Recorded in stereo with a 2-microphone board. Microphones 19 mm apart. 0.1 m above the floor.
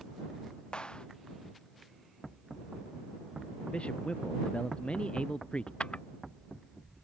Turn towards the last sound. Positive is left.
turn(degrees=75)  # may be behind; listen again after turning